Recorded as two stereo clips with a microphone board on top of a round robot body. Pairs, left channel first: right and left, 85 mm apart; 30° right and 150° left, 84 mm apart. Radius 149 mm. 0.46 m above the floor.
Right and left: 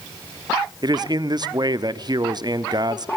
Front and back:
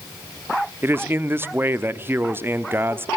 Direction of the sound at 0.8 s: 95° left.